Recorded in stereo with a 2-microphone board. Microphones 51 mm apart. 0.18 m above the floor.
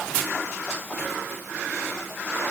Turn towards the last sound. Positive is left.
No sound to turn to.